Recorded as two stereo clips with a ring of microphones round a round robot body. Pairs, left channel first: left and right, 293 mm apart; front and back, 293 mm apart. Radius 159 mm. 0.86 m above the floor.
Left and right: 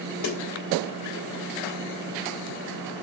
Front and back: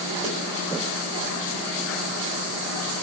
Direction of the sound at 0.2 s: 105° left.